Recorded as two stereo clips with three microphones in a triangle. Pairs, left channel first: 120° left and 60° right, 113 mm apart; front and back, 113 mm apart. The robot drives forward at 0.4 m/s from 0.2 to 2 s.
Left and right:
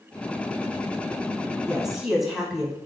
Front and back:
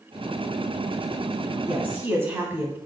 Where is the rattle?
No rattle in this recording.